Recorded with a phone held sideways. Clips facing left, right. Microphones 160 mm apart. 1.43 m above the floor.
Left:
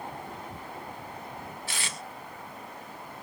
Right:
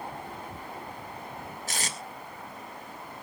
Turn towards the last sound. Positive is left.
turn(degrees=-40)  # may be behind; listen again after turning